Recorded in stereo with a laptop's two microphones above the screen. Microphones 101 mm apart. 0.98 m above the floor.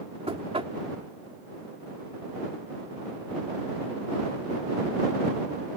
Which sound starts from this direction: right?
Knocking, at 0.3 s.